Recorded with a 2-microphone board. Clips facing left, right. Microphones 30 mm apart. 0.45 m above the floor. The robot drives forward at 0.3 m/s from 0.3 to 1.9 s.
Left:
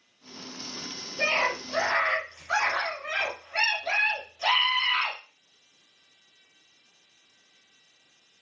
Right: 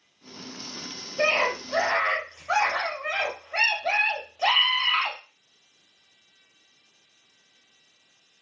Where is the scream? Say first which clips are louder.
Right 2 dB; 65° right (ahead or behind), 1.7 m; by 5.2 s 60° right (ahead or behind), 1.8 m.